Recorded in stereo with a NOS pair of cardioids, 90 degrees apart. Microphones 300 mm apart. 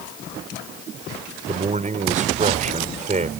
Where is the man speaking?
25° right.